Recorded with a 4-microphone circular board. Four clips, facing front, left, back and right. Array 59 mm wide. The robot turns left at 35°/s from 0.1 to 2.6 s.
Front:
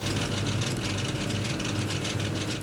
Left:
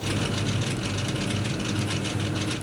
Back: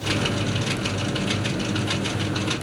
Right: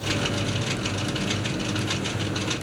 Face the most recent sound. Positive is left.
No sound to turn to.